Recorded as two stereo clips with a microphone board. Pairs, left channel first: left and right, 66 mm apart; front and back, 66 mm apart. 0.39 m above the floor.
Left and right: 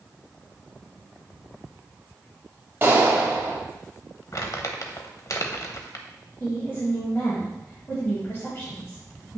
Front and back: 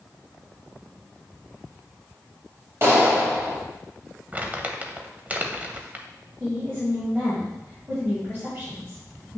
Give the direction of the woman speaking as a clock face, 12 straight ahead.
8 o'clock.